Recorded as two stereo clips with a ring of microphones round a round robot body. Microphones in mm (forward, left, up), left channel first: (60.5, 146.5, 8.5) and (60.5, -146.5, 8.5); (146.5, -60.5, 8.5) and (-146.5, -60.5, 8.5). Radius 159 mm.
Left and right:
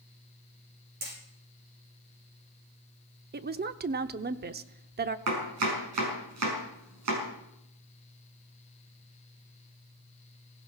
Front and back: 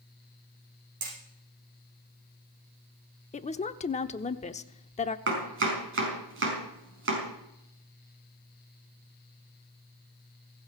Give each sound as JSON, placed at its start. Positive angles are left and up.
{"t": 1.0, "sound": "hammering", "azimuth_deg": -155, "distance_m": 9.0}
{"t": 3.3, "sound": "a woman speaking", "azimuth_deg": -55, "distance_m": 0.9}
{"t": 5.3, "sound": "chopping", "azimuth_deg": -135, "distance_m": 5.5}